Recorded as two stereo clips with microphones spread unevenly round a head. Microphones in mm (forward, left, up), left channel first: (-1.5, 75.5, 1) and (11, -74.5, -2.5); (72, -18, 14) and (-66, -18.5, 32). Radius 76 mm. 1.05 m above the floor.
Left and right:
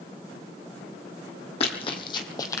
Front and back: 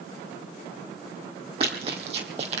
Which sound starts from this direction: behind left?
Running footsteps, at 1.6 s.